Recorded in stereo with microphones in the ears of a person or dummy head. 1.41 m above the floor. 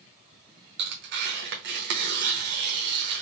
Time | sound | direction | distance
0.8 | tearing paper | 45° right (ahead or behind) | 0.9 m